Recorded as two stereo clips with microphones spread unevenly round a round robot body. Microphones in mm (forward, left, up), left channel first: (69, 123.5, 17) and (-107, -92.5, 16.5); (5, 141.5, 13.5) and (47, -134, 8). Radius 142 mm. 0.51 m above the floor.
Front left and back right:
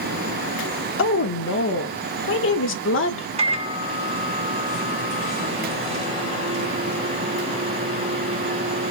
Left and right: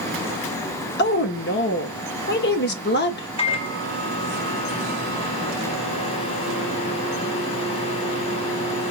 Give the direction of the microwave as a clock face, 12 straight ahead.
6 o'clock.